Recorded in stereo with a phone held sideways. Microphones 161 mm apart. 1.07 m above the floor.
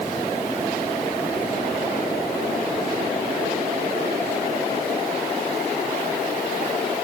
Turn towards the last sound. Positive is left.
No sound to turn to.